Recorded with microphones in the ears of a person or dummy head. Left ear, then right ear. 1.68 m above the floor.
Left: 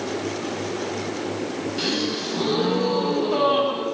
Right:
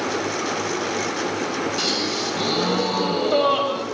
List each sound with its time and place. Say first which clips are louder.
1.8 s a gasp: even; 50° right (ahead or behind), 10 m